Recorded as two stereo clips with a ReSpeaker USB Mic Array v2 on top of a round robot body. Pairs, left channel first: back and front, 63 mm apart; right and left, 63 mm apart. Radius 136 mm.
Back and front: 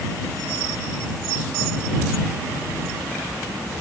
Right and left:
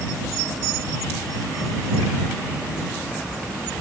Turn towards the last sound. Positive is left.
No sound to turn to.